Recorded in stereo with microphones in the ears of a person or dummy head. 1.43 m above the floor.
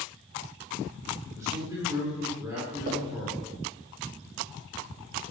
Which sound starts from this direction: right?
Knocking, at 2.9 s.